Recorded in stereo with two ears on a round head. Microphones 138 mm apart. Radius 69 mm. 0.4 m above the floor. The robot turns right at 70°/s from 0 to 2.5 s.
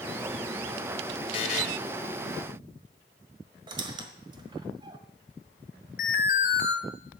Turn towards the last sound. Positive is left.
turn(degrees=55)  # may be behind; listen again after turning